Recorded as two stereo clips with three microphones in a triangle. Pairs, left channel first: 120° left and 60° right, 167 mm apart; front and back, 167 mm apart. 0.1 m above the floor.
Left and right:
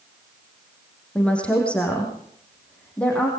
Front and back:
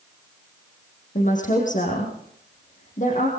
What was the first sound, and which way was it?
A woman speaking, 40° left.